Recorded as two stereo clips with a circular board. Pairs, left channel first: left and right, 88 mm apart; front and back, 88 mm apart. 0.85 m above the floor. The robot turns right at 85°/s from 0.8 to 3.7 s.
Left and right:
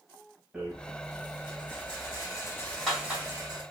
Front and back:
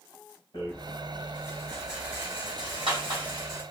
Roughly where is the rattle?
Ahead.